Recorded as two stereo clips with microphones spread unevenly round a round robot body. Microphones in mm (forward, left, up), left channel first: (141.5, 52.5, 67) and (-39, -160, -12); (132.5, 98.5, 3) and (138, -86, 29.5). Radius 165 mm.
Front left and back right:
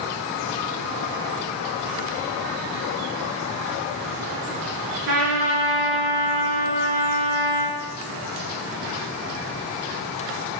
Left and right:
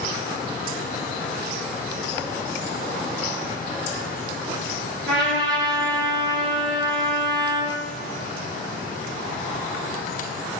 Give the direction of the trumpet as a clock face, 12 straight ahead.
4 o'clock.